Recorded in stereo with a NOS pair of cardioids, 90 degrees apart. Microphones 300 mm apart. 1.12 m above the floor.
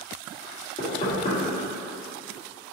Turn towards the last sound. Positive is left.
turn(degrees=20)